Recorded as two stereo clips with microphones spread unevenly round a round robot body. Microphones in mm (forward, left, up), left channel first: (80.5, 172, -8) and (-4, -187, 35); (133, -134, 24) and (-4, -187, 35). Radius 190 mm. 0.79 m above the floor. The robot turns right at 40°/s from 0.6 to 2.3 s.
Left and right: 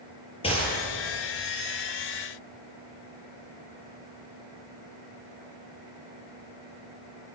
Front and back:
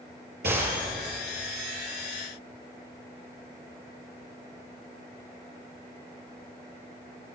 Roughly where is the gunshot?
Behind left.